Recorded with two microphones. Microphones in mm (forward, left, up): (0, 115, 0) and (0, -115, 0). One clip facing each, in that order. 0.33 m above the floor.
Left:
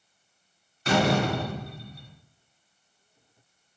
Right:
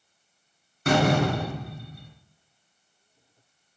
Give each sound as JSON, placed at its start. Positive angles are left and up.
{"t": 0.8, "sound": "a door slam", "side_deg": -55, "distance_m": 1.9}